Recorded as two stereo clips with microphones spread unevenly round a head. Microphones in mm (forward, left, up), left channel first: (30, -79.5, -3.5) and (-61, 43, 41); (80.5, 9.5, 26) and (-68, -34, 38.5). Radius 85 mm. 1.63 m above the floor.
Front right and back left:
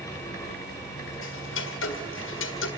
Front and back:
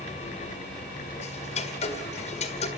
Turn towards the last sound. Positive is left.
turn(degrees=-35)